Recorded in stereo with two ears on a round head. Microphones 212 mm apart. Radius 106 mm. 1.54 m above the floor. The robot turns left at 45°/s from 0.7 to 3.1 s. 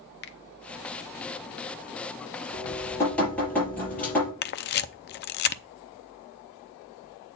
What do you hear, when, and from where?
0.2 s a finger snap: 45° left (ahead or behind), 0.9 m
2.5 s dripping: 30° left (ahead or behind), 6 m; by 4.3 s 5° left (ahead or behind), 6 m
4.4 s a camera shutter: 45° left (ahead or behind), 0.6 m